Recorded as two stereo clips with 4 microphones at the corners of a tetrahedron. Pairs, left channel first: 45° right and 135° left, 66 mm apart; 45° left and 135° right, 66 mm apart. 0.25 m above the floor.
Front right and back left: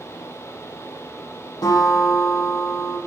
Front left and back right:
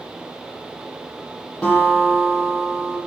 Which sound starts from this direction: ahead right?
A guitar, at 1.6 s.